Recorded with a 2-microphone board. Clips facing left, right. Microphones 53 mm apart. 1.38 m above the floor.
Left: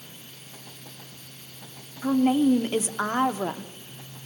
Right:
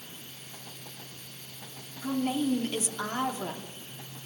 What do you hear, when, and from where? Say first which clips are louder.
2.0 s a woman speaking: left 8 dB; 35° left (ahead or behind), 0.9 m